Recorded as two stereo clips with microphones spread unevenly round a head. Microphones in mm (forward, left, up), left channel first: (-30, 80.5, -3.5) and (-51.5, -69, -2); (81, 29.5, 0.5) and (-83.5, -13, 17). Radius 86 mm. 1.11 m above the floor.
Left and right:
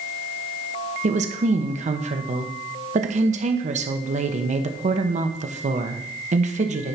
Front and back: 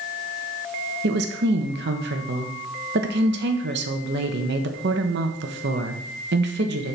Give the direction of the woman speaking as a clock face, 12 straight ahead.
5 o'clock.